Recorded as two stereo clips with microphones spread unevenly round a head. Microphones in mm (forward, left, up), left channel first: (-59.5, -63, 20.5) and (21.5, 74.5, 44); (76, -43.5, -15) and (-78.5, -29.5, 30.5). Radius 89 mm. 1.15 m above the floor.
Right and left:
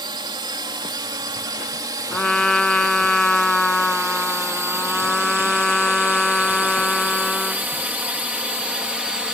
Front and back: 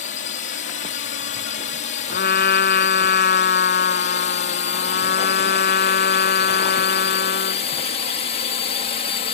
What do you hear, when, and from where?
0.0 s a drone: 5° right; by 9.3 s 30° right
2.1 s a trumpet: 30° right